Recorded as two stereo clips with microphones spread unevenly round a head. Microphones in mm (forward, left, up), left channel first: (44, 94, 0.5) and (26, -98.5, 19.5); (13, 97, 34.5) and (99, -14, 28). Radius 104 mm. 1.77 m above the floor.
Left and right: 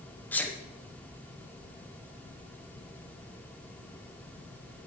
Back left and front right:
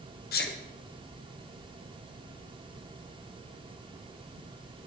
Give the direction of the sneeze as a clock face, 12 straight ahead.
6 o'clock.